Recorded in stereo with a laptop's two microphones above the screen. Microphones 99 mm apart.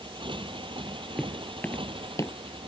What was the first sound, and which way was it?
A motorcycle, 60° right (ahead or behind).